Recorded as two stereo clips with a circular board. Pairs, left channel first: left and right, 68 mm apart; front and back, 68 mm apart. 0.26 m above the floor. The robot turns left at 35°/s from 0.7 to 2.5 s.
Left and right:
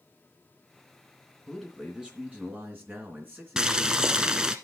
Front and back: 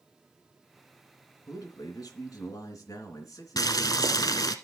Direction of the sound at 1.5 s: 5° left.